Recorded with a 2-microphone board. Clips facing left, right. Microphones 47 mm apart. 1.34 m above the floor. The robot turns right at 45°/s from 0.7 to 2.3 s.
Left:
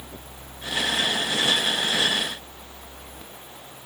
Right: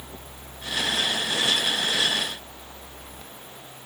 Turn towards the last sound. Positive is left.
No sound to turn to.